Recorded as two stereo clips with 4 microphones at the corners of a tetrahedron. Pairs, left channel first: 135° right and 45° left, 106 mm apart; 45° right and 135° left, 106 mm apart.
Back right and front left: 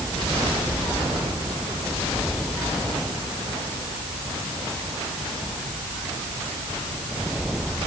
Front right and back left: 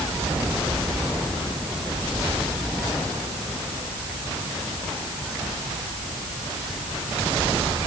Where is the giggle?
I don't hear a giggle.